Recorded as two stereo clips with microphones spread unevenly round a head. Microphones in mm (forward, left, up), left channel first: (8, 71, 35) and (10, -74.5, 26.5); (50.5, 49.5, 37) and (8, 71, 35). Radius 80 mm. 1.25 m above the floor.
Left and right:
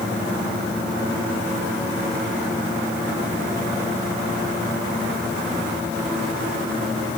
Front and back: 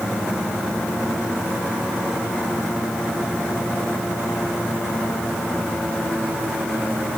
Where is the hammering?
No hammering in this recording.